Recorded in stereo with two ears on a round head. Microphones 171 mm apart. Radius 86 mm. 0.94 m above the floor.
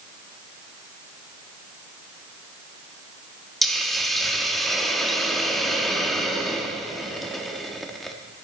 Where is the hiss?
Centre (ahead or behind), 0.9 m.